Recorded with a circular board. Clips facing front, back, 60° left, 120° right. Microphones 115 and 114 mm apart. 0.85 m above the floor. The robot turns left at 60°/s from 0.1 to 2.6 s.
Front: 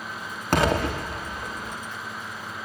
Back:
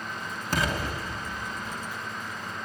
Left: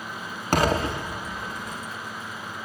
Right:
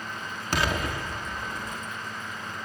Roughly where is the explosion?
Ahead.